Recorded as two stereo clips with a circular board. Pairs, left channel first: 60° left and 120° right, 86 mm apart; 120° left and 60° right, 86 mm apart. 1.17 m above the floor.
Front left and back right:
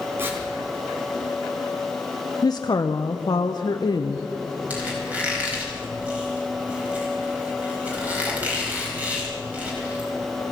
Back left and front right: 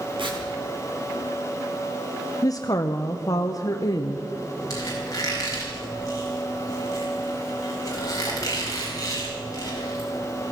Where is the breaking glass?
No breaking glass in this recording.